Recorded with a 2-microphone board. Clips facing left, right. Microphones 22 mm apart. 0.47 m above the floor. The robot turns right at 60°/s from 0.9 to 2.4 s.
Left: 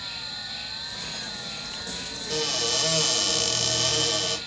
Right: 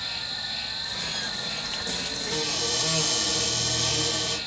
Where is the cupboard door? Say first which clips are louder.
Left 3 dB; 35° left (ahead or behind), 1.1 m; by 4.4 s 40° left (ahead or behind), 1.1 m.